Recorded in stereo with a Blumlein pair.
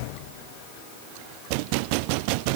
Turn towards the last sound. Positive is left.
No sound to turn to.